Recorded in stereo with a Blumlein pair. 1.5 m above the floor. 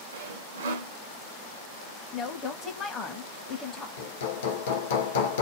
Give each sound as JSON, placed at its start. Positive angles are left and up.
{"t": 0.1, "sound": "sawing", "azimuth_deg": -60, "distance_m": 0.5}
{"t": 2.1, "sound": "a woman speaking", "azimuth_deg": 20, "distance_m": 0.6}
{"t": 4.0, "sound": "hammering", "azimuth_deg": 60, "distance_m": 0.7}